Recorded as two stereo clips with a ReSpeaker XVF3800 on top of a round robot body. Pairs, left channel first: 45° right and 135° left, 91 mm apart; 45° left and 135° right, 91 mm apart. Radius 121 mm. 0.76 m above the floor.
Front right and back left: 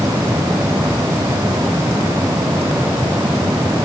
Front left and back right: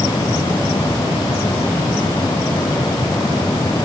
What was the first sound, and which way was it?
Only background noise.